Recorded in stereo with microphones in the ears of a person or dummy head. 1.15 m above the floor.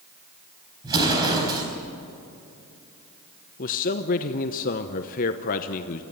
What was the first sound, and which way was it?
An explosion, 20° right (ahead or behind).